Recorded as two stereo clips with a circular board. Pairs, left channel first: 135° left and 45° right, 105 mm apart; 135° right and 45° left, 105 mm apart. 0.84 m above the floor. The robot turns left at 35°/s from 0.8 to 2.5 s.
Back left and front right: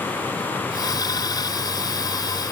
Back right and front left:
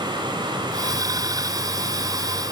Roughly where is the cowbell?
No cowbell in this recording.